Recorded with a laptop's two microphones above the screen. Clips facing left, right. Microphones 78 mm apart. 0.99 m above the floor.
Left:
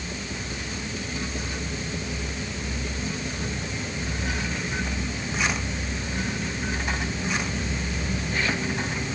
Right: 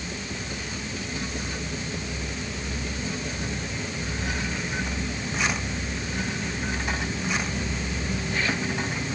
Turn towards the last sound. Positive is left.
No sound to turn to.